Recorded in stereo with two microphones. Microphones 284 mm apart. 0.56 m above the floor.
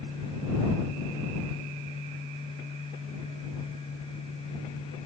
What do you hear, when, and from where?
Only background noise.